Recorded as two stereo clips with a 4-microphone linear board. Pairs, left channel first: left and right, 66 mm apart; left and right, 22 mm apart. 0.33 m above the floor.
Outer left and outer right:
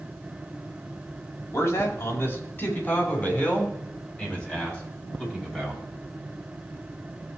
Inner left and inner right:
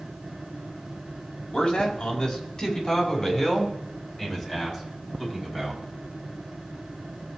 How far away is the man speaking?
About 2.5 m.